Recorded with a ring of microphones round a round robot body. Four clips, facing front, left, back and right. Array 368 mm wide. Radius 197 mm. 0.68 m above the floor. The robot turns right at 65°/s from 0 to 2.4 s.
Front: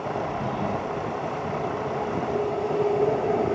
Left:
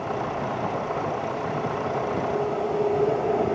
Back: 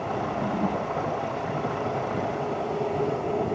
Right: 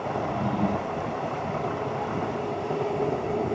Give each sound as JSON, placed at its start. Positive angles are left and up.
{"t": 0.1, "sound": "a drawer", "azimuth_deg": -80, "distance_m": 7.5}